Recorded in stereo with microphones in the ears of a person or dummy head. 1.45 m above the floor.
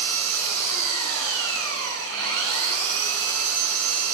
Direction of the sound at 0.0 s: 75° right (ahead or behind).